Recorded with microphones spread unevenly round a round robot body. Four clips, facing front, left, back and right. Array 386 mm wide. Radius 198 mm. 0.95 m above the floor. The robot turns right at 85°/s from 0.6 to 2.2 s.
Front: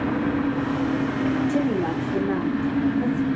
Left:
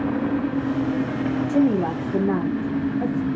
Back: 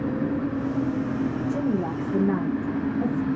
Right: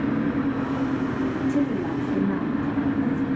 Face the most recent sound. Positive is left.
turn(degrees=120)